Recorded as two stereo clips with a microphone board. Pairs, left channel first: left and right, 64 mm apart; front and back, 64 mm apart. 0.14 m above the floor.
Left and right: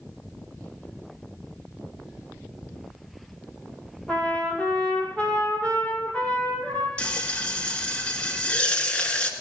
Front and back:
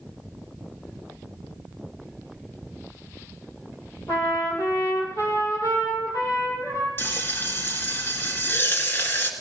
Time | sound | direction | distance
4.1 | a trumpet | 25° left | 4 m
7.0 | frying | 30° left | 1.6 m